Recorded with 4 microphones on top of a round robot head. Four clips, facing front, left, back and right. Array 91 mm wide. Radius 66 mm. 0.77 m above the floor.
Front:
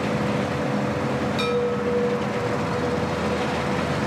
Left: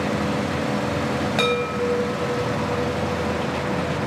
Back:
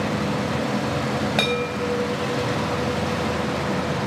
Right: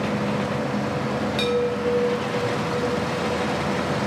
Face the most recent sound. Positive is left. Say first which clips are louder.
# right 1 dB, front 1 dB
turn(degrees=140)